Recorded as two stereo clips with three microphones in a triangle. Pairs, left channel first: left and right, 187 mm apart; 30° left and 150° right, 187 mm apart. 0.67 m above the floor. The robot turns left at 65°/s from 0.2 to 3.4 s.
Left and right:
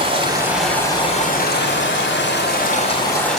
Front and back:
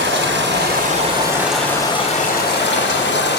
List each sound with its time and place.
0.0 s running water: 150° right, 2 m; by 3.4 s straight ahead, 2 m